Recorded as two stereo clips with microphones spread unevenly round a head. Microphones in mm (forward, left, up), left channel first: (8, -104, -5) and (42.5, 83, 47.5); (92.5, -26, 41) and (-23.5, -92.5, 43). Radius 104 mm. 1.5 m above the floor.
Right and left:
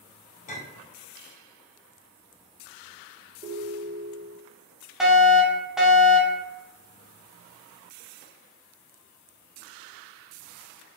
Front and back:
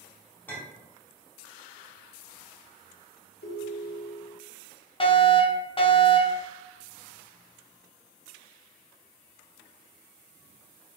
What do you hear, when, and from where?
0.5 s a clink: 45° right, 3 m
3.4 s a ringtone: 35° left, 2.5 m
5.0 s a fire alarm: 15° right, 2.5 m